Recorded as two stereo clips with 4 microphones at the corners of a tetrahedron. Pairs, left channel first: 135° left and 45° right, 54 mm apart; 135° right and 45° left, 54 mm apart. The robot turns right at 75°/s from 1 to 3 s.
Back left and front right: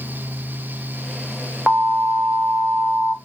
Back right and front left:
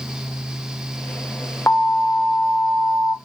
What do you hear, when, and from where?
1.7 s an alarm: 100° right, 0.6 m; by 3.1 s straight ahead, 0.6 m